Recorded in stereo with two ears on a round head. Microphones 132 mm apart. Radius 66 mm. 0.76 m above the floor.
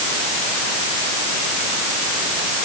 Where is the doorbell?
I don't hear a doorbell.